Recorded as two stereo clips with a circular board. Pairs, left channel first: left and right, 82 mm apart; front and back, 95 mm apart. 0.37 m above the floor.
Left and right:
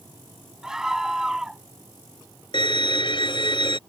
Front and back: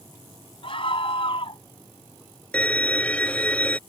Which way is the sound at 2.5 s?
75° left.